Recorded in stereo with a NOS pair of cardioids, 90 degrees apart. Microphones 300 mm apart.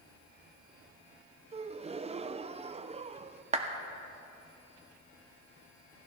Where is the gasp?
20° right, 0.5 m.